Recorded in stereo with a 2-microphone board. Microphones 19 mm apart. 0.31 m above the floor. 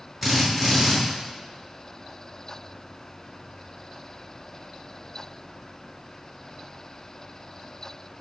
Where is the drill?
10° right (ahead or behind), 3 m.